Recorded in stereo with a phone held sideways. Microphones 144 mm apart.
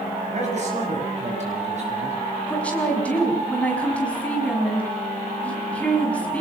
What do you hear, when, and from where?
0.3 s a man speaking: 50° right (ahead or behind), 8 m
2.5 s a woman speaking: 10° left (ahead or behind), 6 m